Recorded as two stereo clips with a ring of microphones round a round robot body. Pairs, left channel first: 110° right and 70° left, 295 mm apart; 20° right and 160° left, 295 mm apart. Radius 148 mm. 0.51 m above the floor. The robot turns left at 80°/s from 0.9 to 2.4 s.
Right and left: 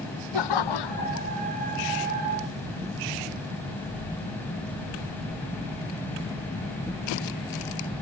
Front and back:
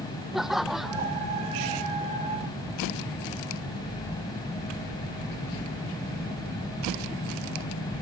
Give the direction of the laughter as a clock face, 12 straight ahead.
4 o'clock.